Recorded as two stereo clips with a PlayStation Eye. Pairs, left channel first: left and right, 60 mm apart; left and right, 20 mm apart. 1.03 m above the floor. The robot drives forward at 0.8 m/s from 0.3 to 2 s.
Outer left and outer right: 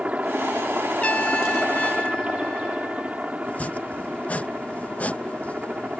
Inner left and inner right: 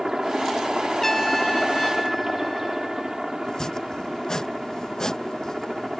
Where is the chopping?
25° left (ahead or behind).